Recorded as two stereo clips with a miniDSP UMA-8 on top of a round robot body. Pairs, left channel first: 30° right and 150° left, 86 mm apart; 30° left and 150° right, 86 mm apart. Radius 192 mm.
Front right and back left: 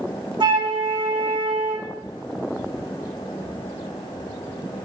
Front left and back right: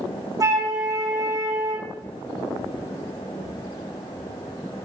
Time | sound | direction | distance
0.4 | a flute | 165° left | 3.5 m